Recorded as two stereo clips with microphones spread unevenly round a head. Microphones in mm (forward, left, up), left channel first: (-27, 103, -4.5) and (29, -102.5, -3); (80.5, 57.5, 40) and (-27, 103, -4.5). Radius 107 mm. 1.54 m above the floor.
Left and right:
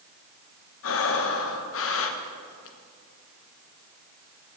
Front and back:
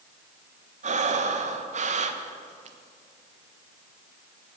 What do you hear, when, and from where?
0.8 s breathing: 125° left, 1.1 m